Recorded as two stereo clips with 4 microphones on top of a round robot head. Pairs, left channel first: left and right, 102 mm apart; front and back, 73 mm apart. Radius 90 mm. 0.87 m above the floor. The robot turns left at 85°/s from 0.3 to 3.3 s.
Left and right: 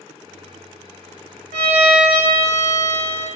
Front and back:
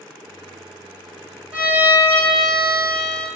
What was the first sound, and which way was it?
A violin, 120° right.